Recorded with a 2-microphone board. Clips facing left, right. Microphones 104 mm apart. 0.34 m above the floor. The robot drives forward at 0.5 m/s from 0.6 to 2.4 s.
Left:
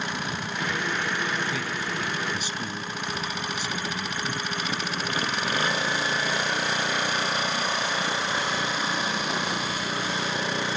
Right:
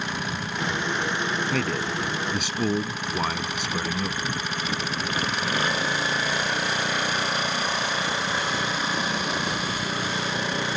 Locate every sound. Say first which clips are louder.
1.5 s a man speaking: right 4 dB; 65° right (ahead or behind); by 4.3 s 70° right (ahead or behind)